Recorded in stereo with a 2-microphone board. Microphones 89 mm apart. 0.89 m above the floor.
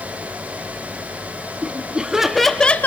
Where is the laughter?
15° right (ahead or behind), 2.5 m; by 2.9 s 20° left (ahead or behind), 1.0 m.